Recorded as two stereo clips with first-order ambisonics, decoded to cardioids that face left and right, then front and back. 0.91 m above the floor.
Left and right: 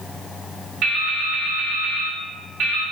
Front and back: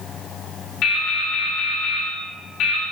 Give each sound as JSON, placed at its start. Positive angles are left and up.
{"t": 0.8, "sound": "dripping", "azimuth_deg": -40, "distance_m": 1.8}